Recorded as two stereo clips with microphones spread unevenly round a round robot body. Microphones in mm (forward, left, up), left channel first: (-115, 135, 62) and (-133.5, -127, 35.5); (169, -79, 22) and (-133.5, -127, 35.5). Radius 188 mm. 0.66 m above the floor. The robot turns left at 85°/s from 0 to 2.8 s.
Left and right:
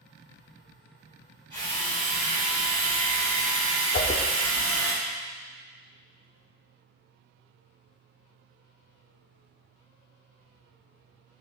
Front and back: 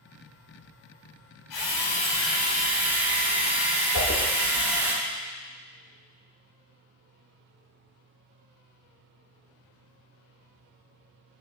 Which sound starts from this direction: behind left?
A whoosh, at 3.9 s.